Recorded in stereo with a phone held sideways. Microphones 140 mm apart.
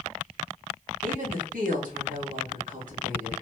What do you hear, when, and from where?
1.0 s a woman speaking: 70° right (ahead or behind), 1.5 m